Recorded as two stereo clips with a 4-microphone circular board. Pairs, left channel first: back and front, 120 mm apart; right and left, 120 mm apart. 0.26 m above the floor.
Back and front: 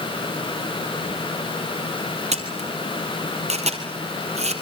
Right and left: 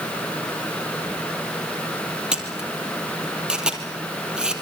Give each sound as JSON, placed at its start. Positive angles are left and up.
{"t": 2.3, "sound": "a camera shutter", "azimuth_deg": 5, "distance_m": 3.5}